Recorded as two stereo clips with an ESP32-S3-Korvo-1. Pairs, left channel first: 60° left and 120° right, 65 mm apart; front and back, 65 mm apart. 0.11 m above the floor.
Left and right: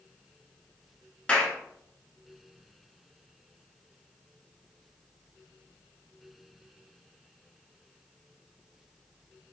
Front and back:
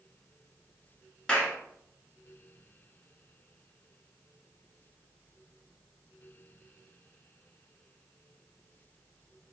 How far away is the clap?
About 1.0 m.